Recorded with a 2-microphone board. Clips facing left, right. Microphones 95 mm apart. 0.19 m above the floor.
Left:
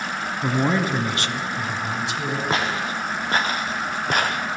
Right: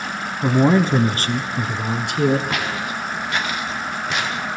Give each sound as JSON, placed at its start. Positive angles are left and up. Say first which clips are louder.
{"t": 0.4, "sound": "a man speaking", "louder": "right 6 dB", "side_deg": -15, "distance_m": 1.5}
{"t": 2.5, "sound": "footsteps", "louder": "left 1 dB", "side_deg": 30, "distance_m": 3.5}